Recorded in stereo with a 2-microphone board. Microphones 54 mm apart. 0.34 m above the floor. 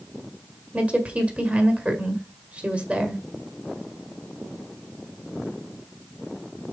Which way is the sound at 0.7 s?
25° right (ahead or behind).